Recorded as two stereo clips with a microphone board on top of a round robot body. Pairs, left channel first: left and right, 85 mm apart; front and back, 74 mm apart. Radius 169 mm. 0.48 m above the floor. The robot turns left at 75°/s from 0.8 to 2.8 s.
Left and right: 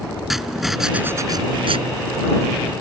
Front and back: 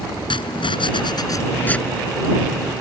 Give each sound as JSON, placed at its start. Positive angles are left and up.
{"t": 0.3, "sound": "writing", "azimuth_deg": -5}